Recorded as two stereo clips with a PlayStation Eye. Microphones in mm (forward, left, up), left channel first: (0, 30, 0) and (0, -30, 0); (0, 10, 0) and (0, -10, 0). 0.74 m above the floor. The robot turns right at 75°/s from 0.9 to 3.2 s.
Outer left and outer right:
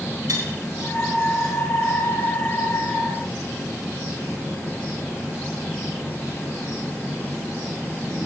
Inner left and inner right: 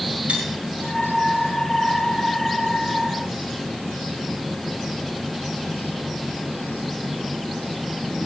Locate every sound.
0.3 s cutlery clinking: 75° right (ahead or behind), 3.5 m